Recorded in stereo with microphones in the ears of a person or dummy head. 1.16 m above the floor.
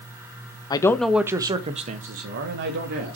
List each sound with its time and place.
0.7 s a man speaking: 20° left (ahead or behind), 1.0 m; by 3.2 s 60° right (ahead or behind), 2.5 m